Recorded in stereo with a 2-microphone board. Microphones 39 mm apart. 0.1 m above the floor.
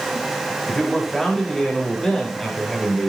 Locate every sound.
0.7 s a man speaking: 10° left (ahead or behind), 9 m